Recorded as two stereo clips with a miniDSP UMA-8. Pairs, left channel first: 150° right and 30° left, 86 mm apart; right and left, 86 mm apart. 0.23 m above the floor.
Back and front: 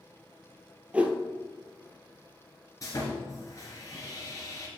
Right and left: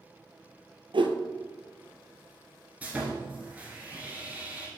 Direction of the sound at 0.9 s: 105° left.